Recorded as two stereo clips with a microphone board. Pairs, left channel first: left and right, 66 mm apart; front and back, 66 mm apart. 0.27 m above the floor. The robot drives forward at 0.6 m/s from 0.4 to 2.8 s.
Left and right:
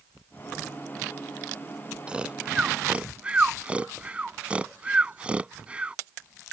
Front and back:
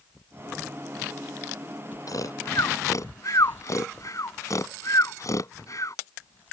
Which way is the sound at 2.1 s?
15° right.